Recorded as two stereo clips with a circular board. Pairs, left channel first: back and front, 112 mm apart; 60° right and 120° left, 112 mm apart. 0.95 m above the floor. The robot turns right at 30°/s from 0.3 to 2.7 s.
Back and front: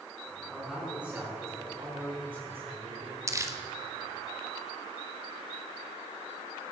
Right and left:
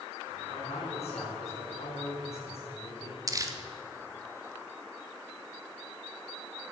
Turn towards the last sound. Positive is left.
turn(degrees=60)